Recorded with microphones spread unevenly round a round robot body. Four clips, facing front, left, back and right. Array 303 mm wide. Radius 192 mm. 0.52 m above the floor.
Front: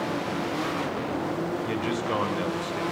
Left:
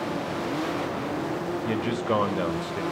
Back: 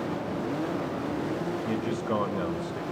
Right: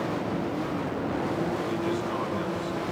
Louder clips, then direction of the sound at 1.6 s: Left 2 dB, front 1 dB; 80° left.